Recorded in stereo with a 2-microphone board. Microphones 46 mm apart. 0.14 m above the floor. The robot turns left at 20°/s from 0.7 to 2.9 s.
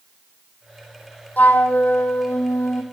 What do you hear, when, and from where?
1.4 s a flute: 35° left (ahead or behind), 0.9 m; by 2.8 s 65° left (ahead or behind), 0.9 m